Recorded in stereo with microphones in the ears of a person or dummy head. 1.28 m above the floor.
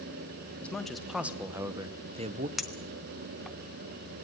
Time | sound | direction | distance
0.6 | a man speaking | 5° left (ahead or behind) | 1.3 m
2.6 | a clink | centre (ahead or behind) | 0.7 m